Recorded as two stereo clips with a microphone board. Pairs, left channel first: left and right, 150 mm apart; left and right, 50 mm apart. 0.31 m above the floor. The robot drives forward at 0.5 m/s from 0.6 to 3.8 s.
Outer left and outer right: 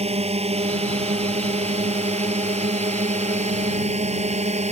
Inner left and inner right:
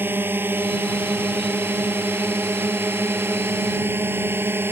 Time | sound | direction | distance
0.0 | a drone | 45° right (ahead or behind) | ?